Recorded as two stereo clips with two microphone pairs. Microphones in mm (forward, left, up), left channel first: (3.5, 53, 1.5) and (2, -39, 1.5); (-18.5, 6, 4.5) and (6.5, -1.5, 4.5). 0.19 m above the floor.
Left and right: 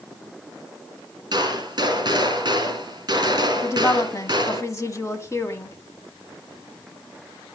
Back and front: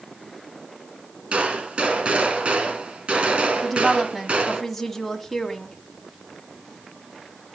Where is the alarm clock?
No alarm clock in this recording.